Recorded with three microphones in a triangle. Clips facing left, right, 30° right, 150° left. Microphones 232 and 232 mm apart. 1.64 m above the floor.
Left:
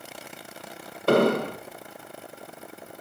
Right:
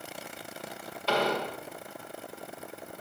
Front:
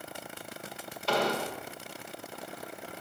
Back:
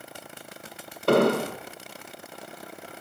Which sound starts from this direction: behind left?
An explosion, at 1.1 s.